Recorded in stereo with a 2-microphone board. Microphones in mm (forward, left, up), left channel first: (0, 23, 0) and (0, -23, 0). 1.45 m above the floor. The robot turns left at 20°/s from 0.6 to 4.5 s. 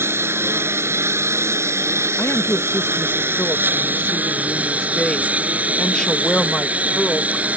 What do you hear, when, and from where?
0.0 s a lawn mower: 65° right; by 7.6 s 145° right
2.2 s a woman speaking: 65° left; by 7.5 s 20° left